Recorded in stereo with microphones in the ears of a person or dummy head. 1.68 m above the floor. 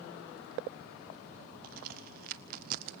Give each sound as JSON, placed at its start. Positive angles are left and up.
{"t": 1.6, "sound": "a crack", "side_deg": -50, "distance_m": 0.8}